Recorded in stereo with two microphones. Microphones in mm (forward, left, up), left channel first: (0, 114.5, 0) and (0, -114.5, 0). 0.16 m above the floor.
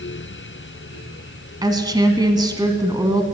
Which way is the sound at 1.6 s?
20° right (ahead or behind).